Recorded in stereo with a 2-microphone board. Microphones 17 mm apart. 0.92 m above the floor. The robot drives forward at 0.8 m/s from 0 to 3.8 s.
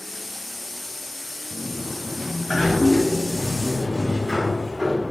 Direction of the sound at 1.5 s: 5° left (ahead or behind).